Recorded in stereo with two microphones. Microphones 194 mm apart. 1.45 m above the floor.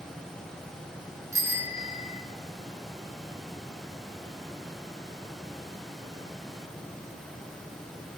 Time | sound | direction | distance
1.3 | a bicycle bell | 15° right (ahead or behind) | 3 m